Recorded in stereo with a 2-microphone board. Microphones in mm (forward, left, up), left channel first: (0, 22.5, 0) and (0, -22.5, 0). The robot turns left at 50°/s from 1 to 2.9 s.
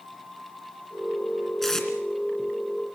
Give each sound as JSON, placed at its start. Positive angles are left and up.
{"t": 1.6, "sound": "tape being pulled", "side_deg": 5, "distance_m": 2.5}